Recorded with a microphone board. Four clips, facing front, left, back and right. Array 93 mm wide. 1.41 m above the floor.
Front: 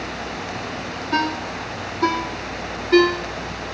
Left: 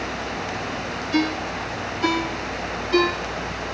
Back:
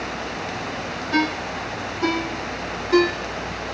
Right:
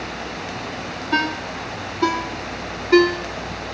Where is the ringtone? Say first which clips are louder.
Even, even; 70° right, 3 m.